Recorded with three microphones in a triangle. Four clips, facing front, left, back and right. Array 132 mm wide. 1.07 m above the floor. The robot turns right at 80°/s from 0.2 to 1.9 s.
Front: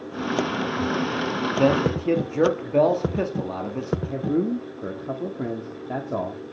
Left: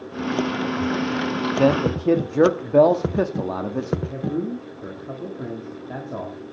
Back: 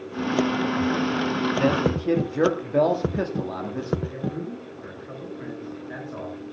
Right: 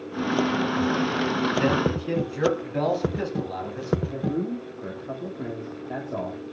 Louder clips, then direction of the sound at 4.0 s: Left 1 dB, front 7 dB; 5° left.